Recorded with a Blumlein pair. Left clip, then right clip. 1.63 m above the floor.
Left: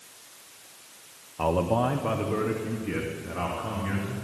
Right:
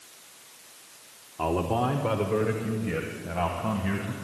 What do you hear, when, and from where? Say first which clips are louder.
1.4 s a man speaking: left 2 dB; 5° left, 0.7 m; by 4.1 s 10° right, 2 m